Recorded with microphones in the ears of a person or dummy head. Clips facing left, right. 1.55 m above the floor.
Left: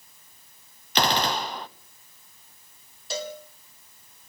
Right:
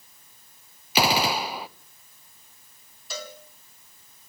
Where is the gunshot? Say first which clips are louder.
Right 1 dB; 10° right (ahead or behind), 0.5 m.